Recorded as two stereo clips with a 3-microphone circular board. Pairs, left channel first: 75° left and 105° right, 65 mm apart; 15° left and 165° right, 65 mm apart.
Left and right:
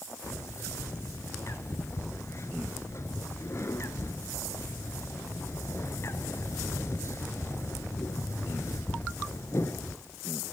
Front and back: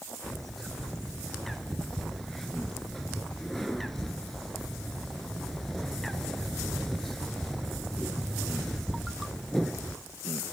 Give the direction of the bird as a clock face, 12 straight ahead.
9 o'clock.